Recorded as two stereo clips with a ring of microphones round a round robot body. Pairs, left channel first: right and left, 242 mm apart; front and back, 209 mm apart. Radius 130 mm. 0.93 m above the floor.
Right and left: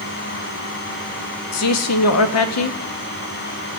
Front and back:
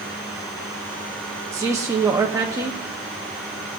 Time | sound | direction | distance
1.5 | a man speaking | 100° right | 1.0 m